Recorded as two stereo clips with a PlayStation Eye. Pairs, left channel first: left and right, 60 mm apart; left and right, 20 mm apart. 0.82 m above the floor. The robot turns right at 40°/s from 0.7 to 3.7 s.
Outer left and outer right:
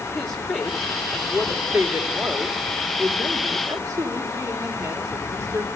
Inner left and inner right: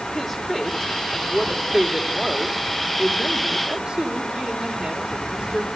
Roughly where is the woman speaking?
Behind.